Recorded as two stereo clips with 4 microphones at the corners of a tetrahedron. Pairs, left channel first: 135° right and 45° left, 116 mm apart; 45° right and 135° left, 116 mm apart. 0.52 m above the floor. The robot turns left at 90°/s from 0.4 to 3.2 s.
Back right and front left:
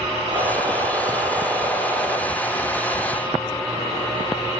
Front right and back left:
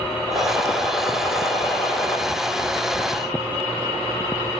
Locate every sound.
0.3 s a gunshot: 70° left, 6 m; by 2.2 s 90° right, 6 m